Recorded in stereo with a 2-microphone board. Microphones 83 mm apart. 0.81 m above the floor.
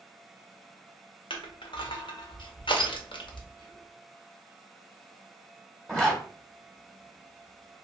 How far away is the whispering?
About 1.1 m.